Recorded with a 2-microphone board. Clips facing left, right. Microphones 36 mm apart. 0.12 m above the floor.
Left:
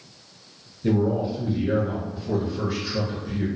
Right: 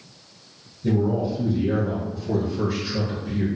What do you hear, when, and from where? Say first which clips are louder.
0.8 s a man speaking: even; 45° left (ahead or behind), 1.8 m; by 3.5 s 15° right (ahead or behind), 1.4 m